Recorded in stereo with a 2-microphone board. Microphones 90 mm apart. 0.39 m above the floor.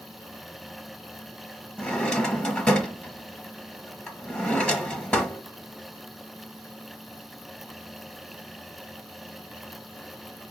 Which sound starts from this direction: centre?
A drawer, at 1.8 s.